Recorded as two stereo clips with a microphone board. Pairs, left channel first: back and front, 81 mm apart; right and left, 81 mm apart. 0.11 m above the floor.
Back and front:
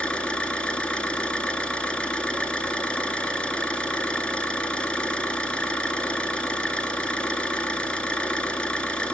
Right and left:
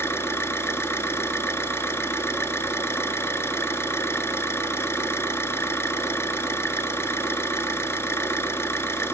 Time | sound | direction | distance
0.0 | an engine running | 110° right | 1.1 m